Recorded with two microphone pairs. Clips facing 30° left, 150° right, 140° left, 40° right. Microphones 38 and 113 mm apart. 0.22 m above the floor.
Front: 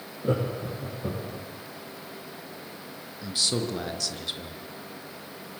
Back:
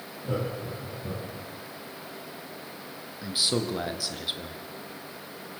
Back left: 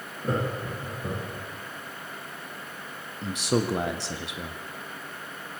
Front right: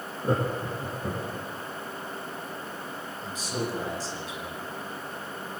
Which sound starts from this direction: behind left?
A man speaking, at 3.2 s.